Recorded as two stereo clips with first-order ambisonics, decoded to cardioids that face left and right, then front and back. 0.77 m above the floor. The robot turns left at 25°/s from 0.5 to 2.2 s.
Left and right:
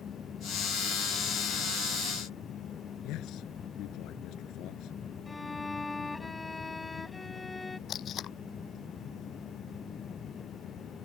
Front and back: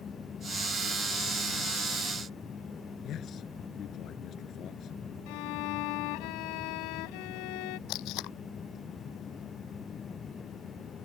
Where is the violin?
10° left.